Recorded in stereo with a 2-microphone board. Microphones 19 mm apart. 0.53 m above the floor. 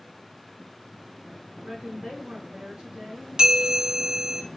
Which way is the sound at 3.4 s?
45° right (ahead or behind).